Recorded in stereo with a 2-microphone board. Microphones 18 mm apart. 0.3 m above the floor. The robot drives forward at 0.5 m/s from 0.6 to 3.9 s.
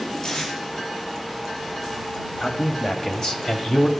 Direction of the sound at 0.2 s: 50° left (ahead or behind).